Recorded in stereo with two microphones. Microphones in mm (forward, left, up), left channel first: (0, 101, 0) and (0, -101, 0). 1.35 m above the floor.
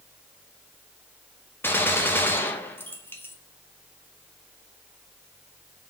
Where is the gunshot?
10° left (ahead or behind), 0.5 m.